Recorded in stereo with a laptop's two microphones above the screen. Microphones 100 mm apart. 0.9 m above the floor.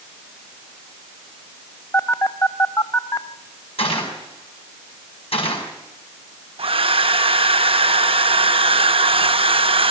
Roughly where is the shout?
No shout in this recording.